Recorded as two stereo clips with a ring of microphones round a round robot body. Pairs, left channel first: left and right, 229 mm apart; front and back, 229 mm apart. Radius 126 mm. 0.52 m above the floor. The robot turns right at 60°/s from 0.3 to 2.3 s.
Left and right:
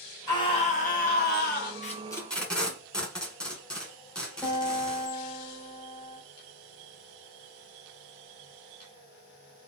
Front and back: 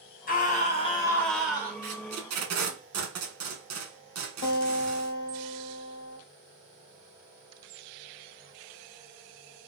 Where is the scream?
25° left, 1.1 m; by 1.7 s 110° left, 1.1 m.